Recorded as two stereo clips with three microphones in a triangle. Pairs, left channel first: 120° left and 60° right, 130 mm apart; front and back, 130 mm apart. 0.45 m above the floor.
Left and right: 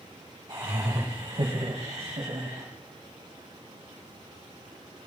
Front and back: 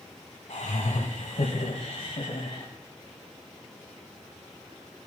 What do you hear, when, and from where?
0.5 s laughter: 10° right, 3 m; by 2.7 s 40° right, 3.5 m